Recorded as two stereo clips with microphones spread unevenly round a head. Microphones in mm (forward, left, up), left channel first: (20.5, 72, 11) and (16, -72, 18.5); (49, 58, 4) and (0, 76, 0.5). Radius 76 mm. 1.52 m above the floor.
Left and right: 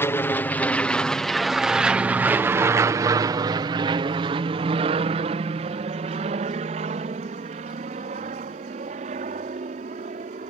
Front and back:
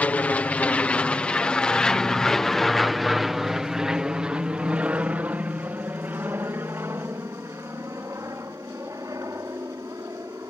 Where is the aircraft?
25° left; by 10.5 s 140° right.